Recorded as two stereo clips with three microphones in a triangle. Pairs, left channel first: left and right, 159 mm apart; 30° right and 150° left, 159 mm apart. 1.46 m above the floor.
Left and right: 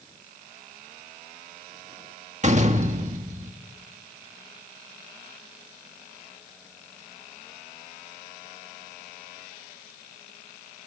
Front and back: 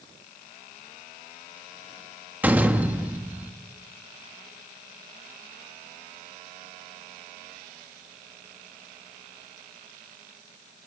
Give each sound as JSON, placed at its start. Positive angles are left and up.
{"t": 2.4, "sound": "a door slam", "azimuth_deg": -130, "distance_m": 1.5}